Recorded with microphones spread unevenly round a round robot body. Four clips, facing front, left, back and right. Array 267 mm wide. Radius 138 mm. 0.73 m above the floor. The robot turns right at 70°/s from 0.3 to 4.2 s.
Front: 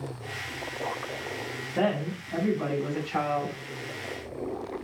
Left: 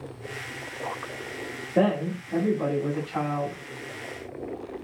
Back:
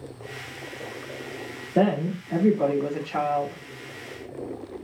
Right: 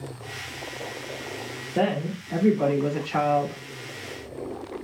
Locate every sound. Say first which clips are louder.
1.8 s a woman speaking: left 2 dB, back 5 dB; 175° left, 1.9 m; by 3.6 s 55° right, 1.9 m